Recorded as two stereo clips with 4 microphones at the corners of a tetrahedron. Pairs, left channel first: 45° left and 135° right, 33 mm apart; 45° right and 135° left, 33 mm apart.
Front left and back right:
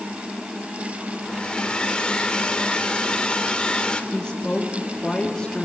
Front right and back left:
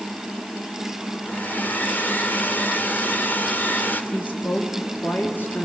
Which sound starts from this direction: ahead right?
A woman speaking, at 4.1 s.